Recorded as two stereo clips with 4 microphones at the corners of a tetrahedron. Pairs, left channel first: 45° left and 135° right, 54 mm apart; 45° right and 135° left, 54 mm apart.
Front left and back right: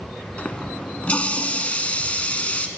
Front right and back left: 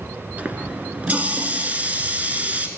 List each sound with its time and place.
0.4 s a running tap: 95° left, 0.9 m